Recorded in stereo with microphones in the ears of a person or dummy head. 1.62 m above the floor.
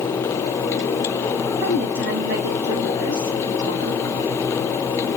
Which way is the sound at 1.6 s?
75° right (ahead or behind).